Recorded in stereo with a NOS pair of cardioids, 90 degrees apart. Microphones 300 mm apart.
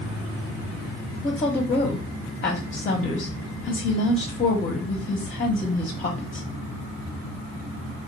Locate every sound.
1.2 s a woman speaking: 25° left, 0.9 m